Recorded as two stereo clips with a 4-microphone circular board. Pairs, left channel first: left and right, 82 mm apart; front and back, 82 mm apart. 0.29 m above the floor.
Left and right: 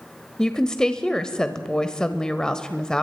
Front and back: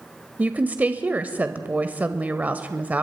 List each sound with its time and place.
0.4 s a woman speaking: 155° left, 0.9 m